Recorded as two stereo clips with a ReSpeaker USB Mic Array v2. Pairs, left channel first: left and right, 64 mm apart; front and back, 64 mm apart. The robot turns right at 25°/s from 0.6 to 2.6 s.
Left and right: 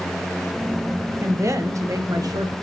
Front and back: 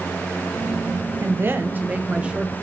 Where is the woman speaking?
135° right, 1.1 m; by 2.5 s 100° right, 1.1 m.